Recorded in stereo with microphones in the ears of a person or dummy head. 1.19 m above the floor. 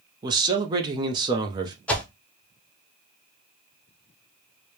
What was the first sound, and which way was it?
A man speaking, 20° right (ahead or behind).